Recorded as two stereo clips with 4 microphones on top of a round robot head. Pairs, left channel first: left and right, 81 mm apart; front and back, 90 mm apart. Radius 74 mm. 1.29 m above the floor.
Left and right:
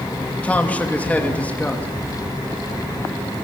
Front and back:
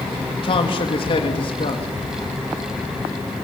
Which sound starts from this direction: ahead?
A man speaking, at 0.4 s.